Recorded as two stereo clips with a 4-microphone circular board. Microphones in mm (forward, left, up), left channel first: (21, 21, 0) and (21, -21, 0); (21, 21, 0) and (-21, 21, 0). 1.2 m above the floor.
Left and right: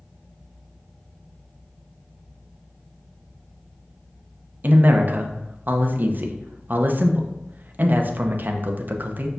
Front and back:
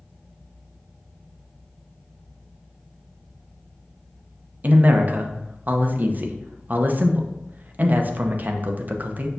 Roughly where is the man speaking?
Behind right.